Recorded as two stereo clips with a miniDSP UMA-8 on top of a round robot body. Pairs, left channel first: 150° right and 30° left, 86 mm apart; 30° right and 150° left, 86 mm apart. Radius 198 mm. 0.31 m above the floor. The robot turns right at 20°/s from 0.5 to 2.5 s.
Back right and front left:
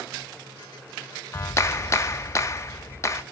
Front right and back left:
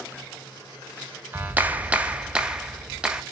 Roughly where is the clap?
Behind.